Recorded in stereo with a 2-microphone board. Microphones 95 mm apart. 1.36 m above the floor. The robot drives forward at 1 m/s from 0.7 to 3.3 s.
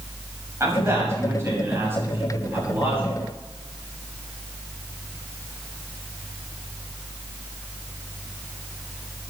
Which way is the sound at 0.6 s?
30° right (ahead or behind).